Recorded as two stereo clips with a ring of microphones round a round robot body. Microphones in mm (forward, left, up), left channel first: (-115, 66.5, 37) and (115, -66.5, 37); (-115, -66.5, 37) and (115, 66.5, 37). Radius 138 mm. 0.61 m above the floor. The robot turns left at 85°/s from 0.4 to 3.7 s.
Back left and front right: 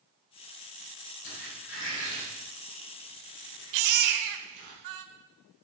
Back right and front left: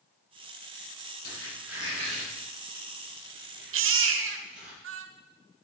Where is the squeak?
155° left, 8.5 m; by 4.7 s 55° right, 8.5 m.